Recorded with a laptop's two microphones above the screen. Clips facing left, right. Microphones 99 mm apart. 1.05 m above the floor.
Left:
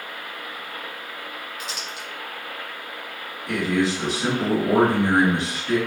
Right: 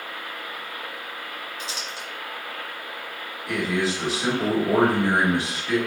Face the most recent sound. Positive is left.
turn(degrees=-5)  # may be behind; listen again after turning